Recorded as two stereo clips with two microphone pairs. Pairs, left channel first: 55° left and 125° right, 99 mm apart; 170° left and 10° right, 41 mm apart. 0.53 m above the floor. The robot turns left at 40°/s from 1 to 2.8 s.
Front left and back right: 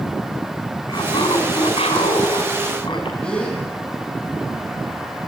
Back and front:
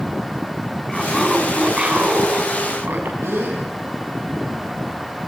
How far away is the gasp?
About 7.5 m.